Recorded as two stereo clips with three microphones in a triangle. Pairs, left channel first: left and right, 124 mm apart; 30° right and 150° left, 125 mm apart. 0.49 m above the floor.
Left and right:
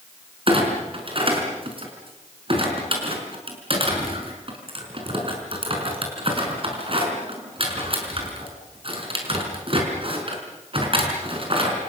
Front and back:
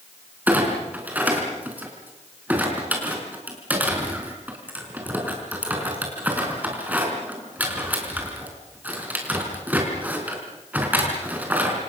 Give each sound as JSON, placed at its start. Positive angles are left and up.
{"t": 0.5, "sound": "a clunk", "azimuth_deg": -135, "distance_m": 5.0}